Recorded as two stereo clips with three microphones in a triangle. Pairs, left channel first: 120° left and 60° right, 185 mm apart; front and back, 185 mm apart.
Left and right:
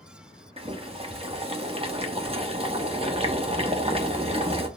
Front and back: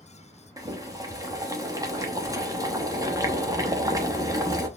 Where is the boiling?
110° right, 1.0 m.